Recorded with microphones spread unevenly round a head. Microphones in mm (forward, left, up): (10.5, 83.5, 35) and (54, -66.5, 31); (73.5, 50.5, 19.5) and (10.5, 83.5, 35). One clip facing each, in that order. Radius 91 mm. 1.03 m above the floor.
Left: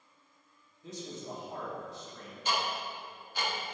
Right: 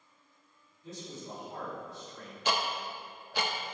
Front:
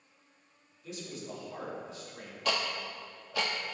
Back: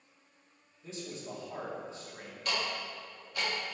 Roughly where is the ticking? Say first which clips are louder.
Right 1 dB, front 2 dB; ahead right.